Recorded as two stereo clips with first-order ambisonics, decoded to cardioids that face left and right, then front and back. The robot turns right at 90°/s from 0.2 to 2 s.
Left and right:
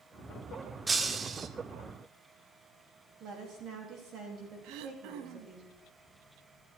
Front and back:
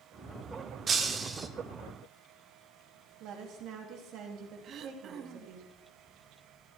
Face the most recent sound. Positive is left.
turn(degrees=-120)